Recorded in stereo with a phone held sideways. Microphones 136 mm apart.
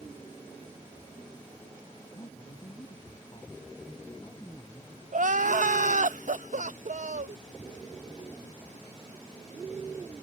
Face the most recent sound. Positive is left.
turn(degrees=-70)  # may be behind; listen again after turning